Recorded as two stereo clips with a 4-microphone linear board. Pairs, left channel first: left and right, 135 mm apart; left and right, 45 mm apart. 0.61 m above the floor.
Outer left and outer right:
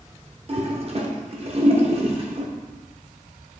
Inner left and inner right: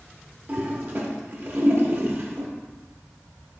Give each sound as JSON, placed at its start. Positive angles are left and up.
{"t": 0.5, "sound": "a toilet flushing", "side_deg": -45, "distance_m": 0.7}